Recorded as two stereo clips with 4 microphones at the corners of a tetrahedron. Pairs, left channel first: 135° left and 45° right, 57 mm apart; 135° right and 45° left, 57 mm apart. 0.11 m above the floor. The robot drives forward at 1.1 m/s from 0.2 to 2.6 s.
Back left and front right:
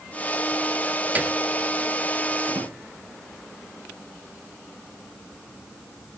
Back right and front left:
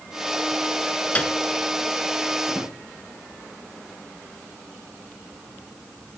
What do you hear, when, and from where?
1.1 s a piano: 85° right, 1.0 m; by 1.4 s 105° right, 1.0 m
2.5 s a drawer: 25° right, 8 m